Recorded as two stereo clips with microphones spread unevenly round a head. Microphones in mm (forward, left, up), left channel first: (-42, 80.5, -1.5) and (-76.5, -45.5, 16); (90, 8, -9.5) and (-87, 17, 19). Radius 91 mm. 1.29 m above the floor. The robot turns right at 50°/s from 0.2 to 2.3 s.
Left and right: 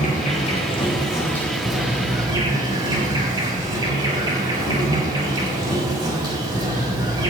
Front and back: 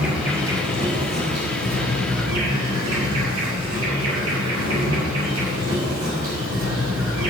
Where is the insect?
95° left, 5.5 m; by 7.3 s 160° right, 5.5 m.